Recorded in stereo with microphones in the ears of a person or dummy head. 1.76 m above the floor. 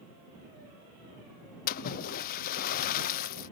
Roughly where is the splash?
Left.